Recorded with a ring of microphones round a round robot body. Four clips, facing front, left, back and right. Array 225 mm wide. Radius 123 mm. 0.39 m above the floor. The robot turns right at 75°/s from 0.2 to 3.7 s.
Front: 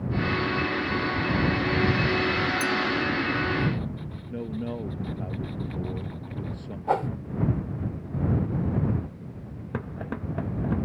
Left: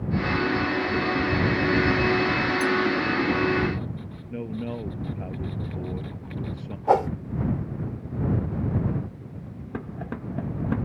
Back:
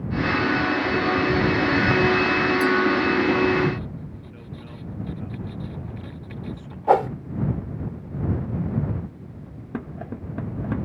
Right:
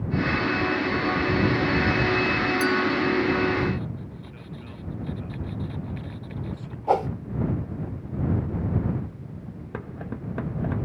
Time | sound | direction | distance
2.6 | a clink | 70° right | ?
4.3 | a man speaking | 50° left | ?
6.9 | a whoosh | 165° left | ?